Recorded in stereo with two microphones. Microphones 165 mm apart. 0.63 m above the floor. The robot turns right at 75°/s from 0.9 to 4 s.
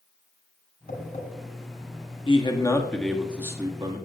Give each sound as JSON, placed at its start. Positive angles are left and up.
{"t": 0.9, "sound": "tapping", "side_deg": 70, "distance_m": 4.0}
{"t": 2.3, "sound": "a man speaking", "azimuth_deg": 115, "distance_m": 1.4}